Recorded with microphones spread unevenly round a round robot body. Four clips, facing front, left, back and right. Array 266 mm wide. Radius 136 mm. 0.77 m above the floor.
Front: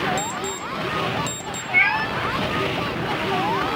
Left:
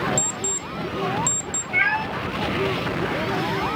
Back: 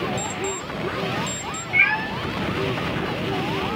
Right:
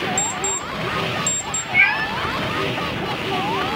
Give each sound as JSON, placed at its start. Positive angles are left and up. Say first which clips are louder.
{"t": 0.2, "sound": "an alarm clock", "louder": "right 4 dB, front 1 dB", "azimuth_deg": 20, "distance_m": 0.6}
{"t": 1.7, "sound": "a cat meowing", "louder": "right 2 dB, front 2 dB", "azimuth_deg": 115, "distance_m": 0.8}